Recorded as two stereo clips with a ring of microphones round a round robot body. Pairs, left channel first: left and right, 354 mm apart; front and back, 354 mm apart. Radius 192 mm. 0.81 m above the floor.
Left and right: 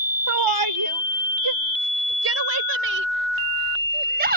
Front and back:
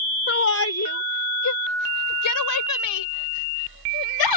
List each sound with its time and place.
0.3 s a shout: 55° right; by 4.4 s 20° right